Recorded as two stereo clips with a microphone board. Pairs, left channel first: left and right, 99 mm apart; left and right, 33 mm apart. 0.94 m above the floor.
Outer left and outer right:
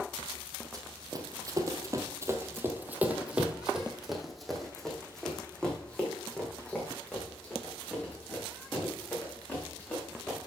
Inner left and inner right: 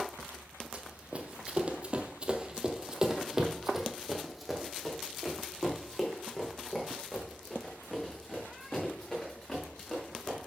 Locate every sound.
0.7 s running footsteps: 40° right (ahead or behind), 1.3 m; by 10.4 s 15° left (ahead or behind), 4.5 m